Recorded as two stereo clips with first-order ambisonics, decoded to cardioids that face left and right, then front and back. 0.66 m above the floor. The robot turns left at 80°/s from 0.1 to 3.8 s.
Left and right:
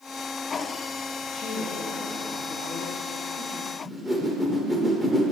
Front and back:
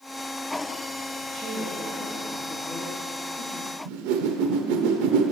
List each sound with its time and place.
1.2 s a woman speaking: 145° left, 1.0 m; by 3.8 s 60° right, 1.0 m
3.9 s a whoosh: 175° right, 0.7 m